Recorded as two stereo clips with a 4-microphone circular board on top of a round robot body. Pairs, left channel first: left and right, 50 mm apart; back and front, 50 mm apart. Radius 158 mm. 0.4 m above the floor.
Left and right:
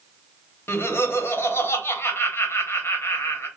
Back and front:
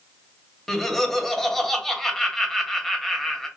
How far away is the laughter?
About 1.4 m.